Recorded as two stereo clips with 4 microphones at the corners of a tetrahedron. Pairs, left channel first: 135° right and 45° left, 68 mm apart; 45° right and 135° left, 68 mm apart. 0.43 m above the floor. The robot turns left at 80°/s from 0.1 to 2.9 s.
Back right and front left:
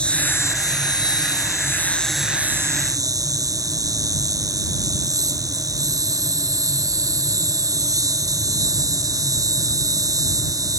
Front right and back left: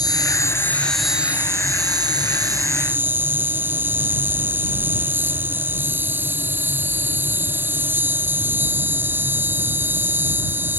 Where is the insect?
60° right; by 10.8 s 75° left.